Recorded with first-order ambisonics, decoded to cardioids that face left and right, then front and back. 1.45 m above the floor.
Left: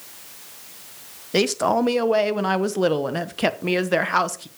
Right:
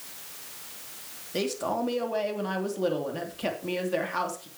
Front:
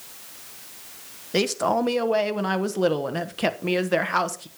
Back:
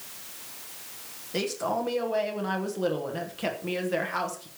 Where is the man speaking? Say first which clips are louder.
Left 9 dB, front 6 dB; 60° left, 1.0 m.